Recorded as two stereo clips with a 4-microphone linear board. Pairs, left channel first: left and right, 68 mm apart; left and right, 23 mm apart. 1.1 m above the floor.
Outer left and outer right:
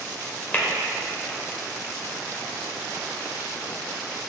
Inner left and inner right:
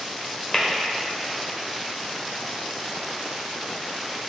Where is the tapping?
25° left (ahead or behind), 1.1 m.